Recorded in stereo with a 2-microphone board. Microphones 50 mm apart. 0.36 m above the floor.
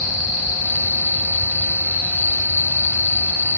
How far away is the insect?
About 2.5 m.